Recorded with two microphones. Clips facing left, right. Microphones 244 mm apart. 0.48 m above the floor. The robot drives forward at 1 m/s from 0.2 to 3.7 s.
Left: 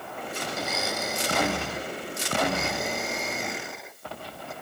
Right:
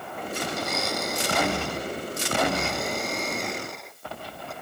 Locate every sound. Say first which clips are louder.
0.5 s a blender: even; 5° left (ahead or behind)